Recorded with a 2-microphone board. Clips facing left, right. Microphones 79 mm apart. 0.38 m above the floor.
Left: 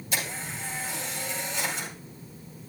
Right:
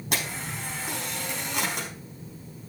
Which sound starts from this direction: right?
A camera shutter, at 0.1 s.